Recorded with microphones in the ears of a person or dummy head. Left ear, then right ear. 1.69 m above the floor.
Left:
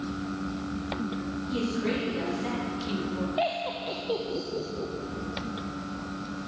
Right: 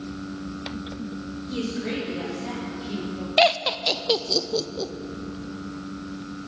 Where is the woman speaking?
10° left (ahead or behind), 3 m; by 3.3 s 65° left (ahead or behind), 2 m.